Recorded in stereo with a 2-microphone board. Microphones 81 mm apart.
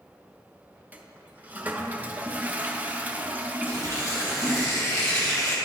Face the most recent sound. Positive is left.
turn(degrees=35)  # may be behind; listen again after turning